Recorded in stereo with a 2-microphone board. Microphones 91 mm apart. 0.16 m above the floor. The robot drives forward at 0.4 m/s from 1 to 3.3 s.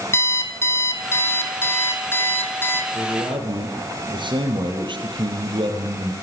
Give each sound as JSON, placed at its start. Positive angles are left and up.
{"t": 0.1, "sound": "an alarm clock", "side_deg": 25, "distance_m": 3.5}
{"t": 2.9, "sound": "a man speaking", "side_deg": -60, "distance_m": 5.5}